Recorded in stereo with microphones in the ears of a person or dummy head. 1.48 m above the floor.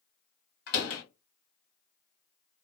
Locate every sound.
0.7 s a door slam: 55° left (ahead or behind), 1.5 m